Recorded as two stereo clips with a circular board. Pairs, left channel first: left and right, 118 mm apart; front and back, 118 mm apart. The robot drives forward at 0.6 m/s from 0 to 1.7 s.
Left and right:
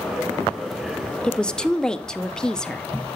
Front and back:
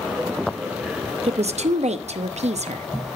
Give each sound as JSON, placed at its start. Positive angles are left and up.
{"t": 1.2, "sound": "a woman speaking", "azimuth_deg": 170, "distance_m": 0.6}